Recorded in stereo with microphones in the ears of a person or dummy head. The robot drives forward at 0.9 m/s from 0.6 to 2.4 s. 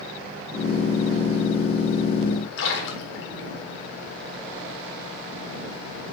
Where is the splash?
80° left, 2.0 m.